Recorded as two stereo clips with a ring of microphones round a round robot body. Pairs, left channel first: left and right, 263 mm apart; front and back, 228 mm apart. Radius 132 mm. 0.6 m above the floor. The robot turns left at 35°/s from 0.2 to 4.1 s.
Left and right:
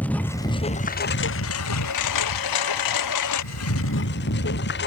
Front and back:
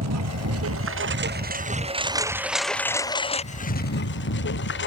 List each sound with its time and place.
0.0 s a lawn mower: 175° left; by 4.9 s 40° left